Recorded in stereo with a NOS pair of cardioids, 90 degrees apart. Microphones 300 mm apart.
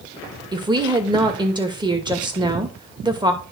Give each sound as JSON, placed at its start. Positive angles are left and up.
{"t": 0.5, "sound": "a woman speaking", "azimuth_deg": -15, "distance_m": 2.5}